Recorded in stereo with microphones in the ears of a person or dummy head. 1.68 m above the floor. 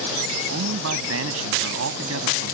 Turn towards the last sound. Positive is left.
turn(degrees=-80)